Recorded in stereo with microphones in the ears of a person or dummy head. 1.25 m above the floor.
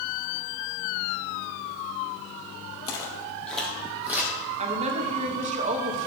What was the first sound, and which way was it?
Footsteps, 25° left (ahead or behind).